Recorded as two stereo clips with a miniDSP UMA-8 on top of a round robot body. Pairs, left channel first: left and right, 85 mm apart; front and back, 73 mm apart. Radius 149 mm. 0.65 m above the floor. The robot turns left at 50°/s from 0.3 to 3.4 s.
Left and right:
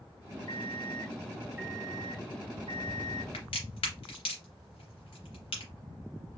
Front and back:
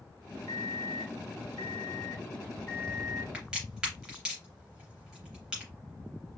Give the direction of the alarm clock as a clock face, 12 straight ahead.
11 o'clock.